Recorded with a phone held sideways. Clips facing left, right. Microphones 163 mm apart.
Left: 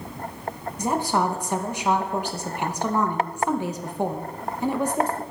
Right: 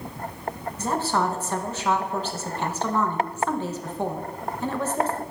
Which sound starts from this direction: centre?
A woman speaking, at 0.8 s.